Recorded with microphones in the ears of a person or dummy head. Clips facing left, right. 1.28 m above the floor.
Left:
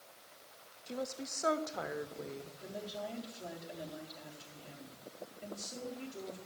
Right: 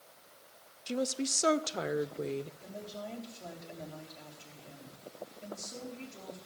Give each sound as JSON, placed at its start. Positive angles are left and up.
{"t": 0.9, "sound": "a woman speaking", "side_deg": -40, "distance_m": 0.5}
{"t": 2.6, "sound": "a woman speaking", "side_deg": 10, "distance_m": 3.0}